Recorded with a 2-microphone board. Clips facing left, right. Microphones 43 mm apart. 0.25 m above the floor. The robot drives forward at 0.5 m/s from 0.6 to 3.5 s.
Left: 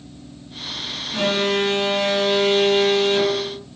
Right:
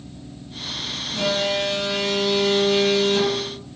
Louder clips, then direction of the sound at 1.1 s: Left 2 dB; 40° left (ahead or behind).